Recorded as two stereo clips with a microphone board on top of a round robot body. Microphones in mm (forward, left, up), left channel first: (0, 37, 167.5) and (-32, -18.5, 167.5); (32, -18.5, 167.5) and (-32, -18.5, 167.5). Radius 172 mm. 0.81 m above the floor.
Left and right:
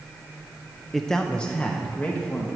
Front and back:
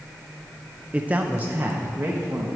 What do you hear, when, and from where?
0.9 s a man speaking: 145° left, 0.8 m; by 2.6 s 120° left, 1.4 m